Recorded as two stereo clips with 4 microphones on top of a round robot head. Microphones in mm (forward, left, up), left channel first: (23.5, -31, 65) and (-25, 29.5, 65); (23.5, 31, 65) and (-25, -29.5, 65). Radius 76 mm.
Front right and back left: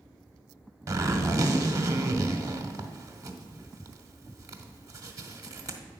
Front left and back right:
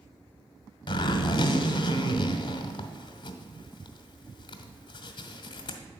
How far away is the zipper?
About 0.9 m.